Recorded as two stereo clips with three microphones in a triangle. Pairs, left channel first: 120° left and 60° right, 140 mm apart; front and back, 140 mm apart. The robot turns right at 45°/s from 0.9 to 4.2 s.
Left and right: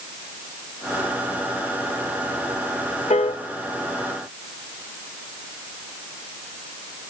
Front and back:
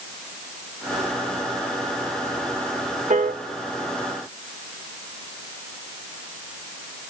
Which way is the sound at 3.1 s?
155° left.